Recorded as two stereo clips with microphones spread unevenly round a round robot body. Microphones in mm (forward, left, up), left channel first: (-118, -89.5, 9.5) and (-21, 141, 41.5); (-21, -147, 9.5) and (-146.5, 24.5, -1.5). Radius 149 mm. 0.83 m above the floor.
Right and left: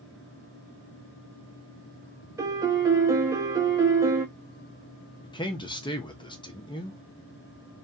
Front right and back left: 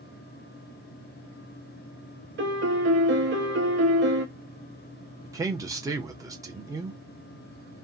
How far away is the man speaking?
About 0.8 m.